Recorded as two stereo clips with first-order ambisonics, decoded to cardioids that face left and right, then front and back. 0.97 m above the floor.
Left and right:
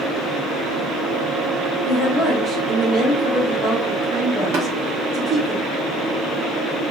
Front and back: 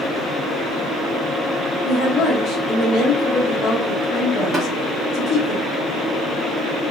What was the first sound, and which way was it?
A woman speaking, 35° right.